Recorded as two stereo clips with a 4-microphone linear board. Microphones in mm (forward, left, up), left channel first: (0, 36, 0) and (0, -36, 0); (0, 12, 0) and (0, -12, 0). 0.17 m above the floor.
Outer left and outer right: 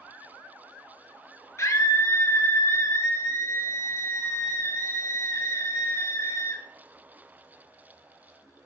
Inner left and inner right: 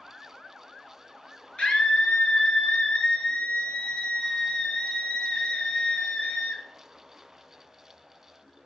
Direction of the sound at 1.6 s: 40° left (ahead or behind).